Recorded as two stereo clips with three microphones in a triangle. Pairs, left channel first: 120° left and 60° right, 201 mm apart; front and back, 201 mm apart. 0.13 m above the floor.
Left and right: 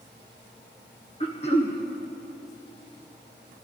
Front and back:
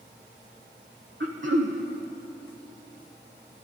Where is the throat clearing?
175° left, 1.6 m.